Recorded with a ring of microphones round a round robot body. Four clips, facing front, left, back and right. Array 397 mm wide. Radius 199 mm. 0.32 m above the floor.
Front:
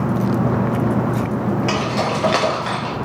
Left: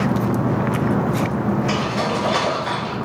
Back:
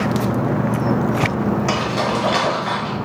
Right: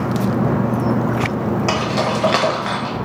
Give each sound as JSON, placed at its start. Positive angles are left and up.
{"t": 1.7, "sound": "keys jangling", "azimuth_deg": -105, "distance_m": 1.0}